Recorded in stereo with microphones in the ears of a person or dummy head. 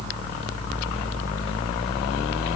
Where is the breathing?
I don't hear breathing.